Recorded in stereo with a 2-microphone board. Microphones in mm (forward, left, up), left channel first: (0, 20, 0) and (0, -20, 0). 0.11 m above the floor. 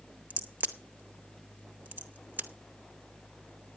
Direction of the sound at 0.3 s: 55° right (ahead or behind).